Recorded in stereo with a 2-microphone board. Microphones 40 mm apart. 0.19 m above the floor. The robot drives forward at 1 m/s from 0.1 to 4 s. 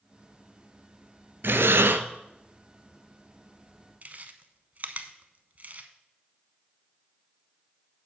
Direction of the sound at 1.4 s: 65° right (ahead or behind).